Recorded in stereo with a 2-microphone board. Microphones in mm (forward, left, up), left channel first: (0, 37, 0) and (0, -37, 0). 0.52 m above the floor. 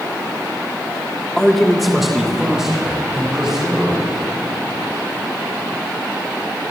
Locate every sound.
1.4 s a man speaking: 10° left (ahead or behind), 0.9 m; by 4.2 s 10° right (ahead or behind), 4.5 m